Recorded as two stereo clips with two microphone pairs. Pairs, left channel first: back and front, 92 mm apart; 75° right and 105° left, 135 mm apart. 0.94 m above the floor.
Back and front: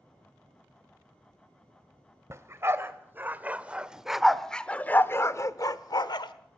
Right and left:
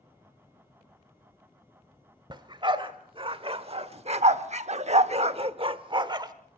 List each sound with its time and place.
2.3 s a dog barking: 55° left, 1.6 m; by 6.3 s 160° left, 1.1 m